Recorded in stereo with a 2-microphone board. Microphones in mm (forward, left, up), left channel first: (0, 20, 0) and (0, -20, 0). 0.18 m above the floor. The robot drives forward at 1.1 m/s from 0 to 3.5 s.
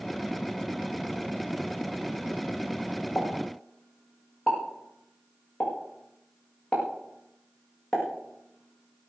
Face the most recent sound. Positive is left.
turn(degrees=15)  # may be behind; listen again after turning